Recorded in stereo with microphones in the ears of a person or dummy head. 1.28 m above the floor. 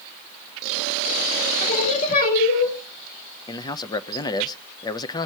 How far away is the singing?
About 4.5 m.